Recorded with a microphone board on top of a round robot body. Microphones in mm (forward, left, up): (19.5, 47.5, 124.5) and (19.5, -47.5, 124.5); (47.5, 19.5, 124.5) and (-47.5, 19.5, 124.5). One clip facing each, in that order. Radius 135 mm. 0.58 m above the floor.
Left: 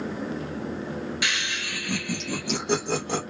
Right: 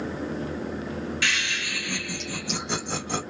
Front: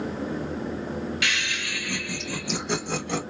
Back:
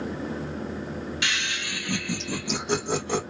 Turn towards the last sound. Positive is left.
turn(degrees=110)